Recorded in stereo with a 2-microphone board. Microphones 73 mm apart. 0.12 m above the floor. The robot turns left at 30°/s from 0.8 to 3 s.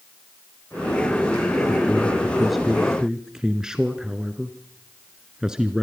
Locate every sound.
1.7 s a man speaking: 25° left, 1.2 m; by 5.8 s 15° right, 1.2 m